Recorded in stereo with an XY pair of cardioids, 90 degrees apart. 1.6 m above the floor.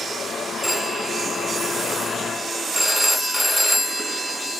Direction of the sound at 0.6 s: Straight ahead.